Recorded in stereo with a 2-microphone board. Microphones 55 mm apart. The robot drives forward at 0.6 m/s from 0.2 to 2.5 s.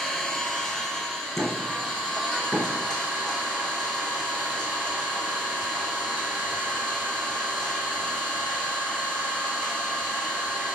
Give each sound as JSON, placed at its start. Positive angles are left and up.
{"t": 0.0, "sound": "an engine running", "side_deg": 10, "distance_m": 1.1}
{"t": 1.4, "sound": "knocking", "side_deg": 40, "distance_m": 2.5}